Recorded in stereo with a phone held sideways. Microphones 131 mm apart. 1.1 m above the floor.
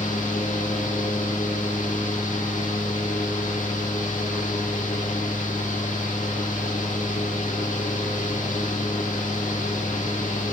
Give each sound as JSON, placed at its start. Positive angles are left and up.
{"t": 0.0, "sound": "a fan", "side_deg": 75, "distance_m": 1.4}